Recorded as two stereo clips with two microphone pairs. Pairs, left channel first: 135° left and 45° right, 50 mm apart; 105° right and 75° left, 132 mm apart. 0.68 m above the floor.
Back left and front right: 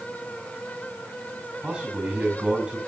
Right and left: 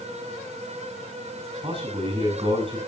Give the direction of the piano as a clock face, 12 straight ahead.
I don't hear a piano.